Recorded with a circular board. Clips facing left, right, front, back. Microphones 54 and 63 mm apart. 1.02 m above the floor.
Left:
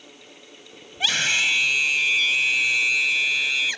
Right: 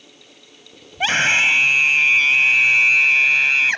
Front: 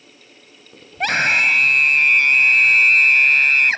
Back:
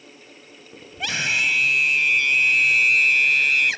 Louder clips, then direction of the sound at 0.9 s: Right 6 dB, front 7 dB; 35° right.